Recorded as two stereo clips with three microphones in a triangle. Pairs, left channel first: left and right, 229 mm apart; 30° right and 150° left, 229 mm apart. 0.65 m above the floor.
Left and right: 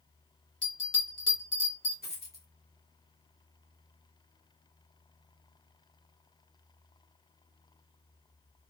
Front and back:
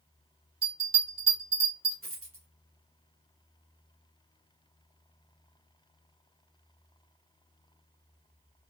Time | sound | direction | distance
0.6 | a bell | 90° left | 1.9 m
2.0 | a dropped coin | 135° left | 1.2 m